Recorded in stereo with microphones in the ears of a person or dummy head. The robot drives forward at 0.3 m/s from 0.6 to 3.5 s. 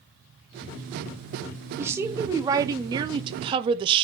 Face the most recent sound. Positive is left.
turn(degrees=-30)  # may be behind; listen again after turning